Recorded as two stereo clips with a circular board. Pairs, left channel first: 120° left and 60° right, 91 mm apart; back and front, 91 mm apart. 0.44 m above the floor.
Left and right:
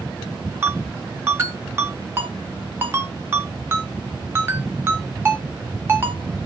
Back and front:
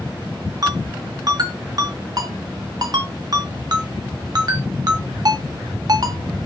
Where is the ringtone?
10° right, 0.6 m.